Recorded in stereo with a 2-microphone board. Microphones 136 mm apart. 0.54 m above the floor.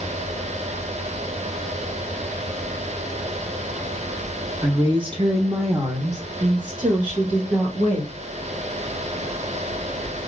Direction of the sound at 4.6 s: 20° right (ahead or behind).